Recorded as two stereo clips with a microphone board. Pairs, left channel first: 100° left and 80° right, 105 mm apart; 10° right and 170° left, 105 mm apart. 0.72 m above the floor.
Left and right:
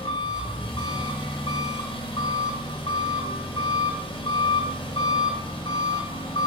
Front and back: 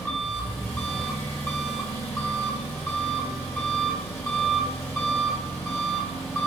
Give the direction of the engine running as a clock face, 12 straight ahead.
10 o'clock.